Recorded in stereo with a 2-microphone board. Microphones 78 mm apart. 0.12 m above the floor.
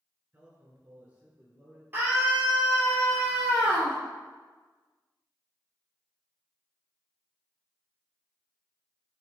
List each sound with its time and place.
0.3 s a man speaking: 20° right (ahead or behind), 1.9 m
1.9 s a scream: 25° right (ahead or behind), 2.5 m